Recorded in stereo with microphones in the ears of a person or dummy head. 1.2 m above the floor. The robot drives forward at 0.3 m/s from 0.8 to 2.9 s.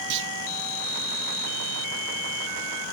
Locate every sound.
0.1 s a clunk: 60° right (ahead or behind), 0.6 m